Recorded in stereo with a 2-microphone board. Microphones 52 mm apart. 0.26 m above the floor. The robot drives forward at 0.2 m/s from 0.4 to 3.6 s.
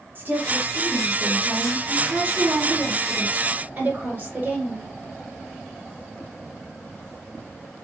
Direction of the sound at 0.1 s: 40° right (ahead or behind).